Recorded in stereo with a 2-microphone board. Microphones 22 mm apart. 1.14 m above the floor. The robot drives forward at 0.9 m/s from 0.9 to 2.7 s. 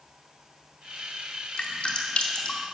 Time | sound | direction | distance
1.6 | dripping | 60° left (ahead or behind) | 2.5 m